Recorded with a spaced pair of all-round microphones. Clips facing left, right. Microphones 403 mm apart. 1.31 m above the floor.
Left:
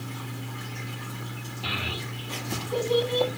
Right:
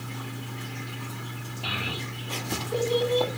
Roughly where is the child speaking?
Left.